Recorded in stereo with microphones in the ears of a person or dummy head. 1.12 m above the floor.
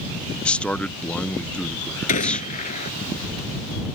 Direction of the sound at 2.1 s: 40° left (ahead or behind).